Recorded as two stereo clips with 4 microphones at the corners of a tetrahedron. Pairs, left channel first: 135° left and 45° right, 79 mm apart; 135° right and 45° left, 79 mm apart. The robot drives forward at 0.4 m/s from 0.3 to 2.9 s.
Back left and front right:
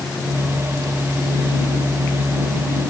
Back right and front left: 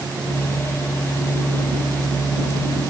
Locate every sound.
Only background noise.